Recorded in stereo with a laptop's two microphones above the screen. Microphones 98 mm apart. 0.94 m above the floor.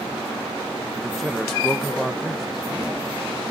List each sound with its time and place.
0.9 s a man speaking: centre (ahead or behind), 1.1 m